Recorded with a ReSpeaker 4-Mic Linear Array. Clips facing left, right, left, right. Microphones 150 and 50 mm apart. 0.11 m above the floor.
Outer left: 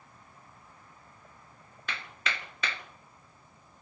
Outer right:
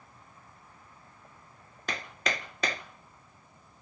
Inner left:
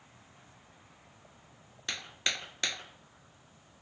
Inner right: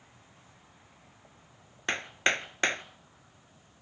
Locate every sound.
1.9 s hammering: 40° right (ahead or behind), 0.9 m